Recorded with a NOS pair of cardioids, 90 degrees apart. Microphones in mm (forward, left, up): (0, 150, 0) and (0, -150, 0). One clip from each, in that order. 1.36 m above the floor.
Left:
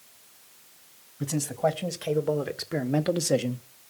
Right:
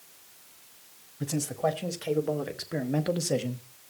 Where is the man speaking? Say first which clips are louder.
Left 2 dB; 15° left, 2.5 m; by 3.6 s 25° left, 1.3 m.